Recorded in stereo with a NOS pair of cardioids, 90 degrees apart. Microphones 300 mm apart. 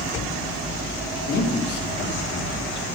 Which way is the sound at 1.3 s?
60° left.